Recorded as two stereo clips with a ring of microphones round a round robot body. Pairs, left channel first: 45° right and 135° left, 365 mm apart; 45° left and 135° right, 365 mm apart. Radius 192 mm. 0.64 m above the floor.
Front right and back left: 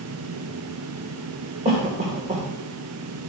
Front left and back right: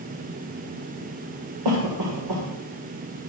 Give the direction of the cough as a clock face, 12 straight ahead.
5 o'clock.